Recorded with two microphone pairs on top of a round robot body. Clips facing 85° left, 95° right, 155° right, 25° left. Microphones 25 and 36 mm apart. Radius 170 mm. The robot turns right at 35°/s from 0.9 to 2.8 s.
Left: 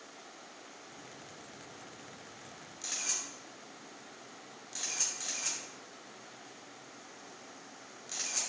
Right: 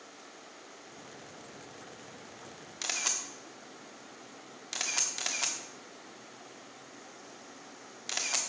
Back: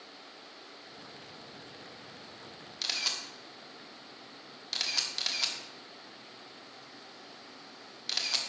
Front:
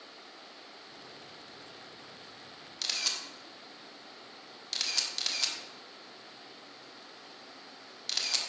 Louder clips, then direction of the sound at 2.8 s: Right 4 dB, even; 75° right.